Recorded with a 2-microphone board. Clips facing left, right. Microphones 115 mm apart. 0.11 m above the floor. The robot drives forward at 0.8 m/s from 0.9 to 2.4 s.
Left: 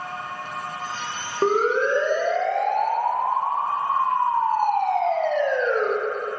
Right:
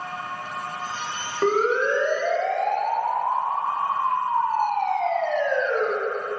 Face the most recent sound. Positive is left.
turn(degrees=35)  # may be behind; listen again after turning